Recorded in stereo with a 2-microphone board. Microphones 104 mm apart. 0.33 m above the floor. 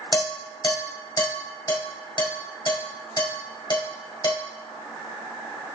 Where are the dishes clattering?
50° left (ahead or behind), 1.3 m.